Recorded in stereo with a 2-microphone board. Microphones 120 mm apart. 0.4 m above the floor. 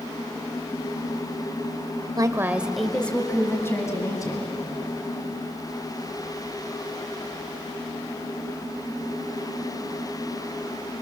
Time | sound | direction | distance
2.2 | a woman speaking | 35° right (ahead or behind) | 1.2 m